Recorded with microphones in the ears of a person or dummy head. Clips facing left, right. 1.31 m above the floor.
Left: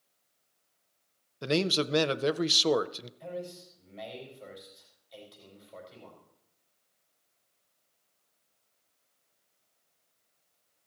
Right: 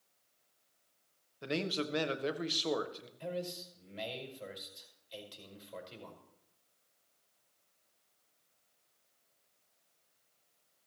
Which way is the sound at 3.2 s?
40° right (ahead or behind).